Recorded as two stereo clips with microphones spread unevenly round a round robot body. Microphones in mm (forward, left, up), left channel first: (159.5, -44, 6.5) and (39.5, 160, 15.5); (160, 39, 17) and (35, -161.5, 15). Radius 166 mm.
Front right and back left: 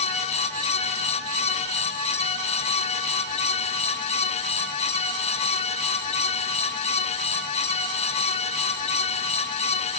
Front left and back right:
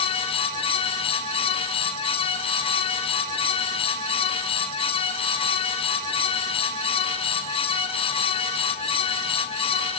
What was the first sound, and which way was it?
Only background noise.